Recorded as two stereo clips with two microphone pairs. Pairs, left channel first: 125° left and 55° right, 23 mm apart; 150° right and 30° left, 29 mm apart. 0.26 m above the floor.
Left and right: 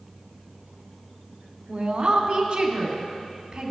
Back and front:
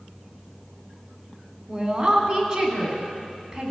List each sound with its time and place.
1.7 s a woman speaking: 20° right, 2.5 m